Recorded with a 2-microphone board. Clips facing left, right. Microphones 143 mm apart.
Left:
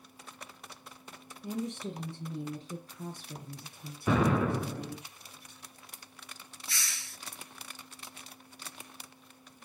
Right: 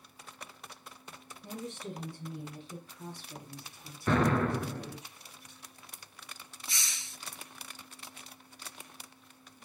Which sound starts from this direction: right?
A hiss, at 6.7 s.